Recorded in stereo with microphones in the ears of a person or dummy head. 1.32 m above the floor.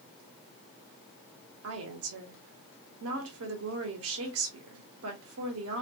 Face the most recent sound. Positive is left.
turn(degrees=-80)